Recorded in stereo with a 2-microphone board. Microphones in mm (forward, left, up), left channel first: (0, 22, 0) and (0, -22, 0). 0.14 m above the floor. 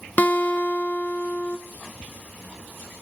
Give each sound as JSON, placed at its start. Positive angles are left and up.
{"t": 0.2, "sound": "a guitar", "side_deg": 40, "distance_m": 0.9}